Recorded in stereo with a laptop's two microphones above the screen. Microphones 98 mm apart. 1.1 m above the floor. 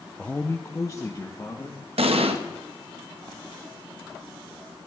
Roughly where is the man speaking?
Centre.